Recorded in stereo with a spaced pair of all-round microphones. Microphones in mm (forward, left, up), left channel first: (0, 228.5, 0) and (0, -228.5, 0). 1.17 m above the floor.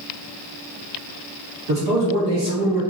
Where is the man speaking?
85° right, 1.5 m; by 2.8 s 60° right (ahead or behind), 1.1 m.